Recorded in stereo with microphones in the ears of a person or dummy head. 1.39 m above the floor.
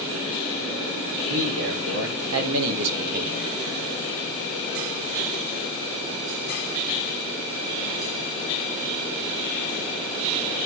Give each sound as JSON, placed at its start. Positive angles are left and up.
{"t": 1.3, "sound": "a man speaking", "side_deg": -70, "distance_m": 3.5}